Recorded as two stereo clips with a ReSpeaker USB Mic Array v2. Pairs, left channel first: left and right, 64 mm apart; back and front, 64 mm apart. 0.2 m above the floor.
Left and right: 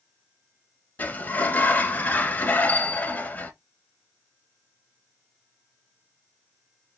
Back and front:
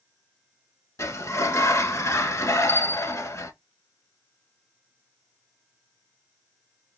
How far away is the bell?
About 0.7 m.